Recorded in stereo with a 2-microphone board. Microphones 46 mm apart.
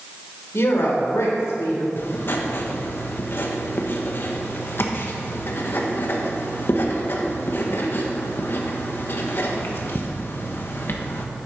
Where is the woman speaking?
70° left (ahead or behind), 3.5 m; by 1.9 s 90° left, 3.5 m.